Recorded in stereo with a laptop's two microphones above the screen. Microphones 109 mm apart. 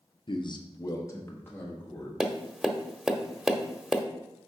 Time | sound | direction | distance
0.3 | a man speaking | 45° left (ahead or behind) | 0.7 m
2.2 | tapping | 5° right (ahead or behind) | 0.7 m